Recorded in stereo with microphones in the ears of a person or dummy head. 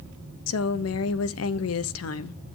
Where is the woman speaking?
75° left (ahead or behind), 0.9 m.